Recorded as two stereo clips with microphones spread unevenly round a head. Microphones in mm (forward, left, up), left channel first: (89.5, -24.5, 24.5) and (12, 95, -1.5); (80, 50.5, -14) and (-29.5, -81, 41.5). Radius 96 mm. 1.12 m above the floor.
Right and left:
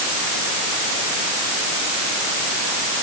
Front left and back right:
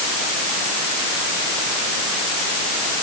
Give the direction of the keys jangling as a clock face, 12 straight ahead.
No keys jangling in this recording.